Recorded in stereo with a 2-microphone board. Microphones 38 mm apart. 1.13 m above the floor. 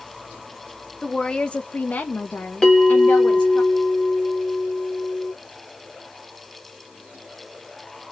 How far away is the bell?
About 1.2 m.